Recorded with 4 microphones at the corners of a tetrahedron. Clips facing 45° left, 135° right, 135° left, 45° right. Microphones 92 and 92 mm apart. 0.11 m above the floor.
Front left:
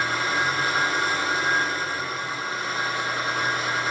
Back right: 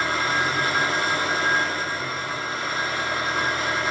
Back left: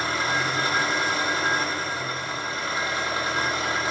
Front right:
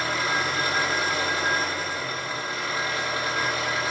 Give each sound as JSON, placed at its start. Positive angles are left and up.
{"t": 0.0, "sound": "an engine running", "azimuth_deg": -160, "distance_m": 7.0}